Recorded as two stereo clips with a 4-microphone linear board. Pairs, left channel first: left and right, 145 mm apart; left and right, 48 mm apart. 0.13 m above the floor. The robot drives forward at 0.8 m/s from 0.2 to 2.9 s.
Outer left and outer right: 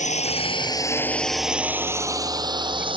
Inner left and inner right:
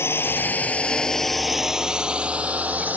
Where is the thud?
I don't hear a thud.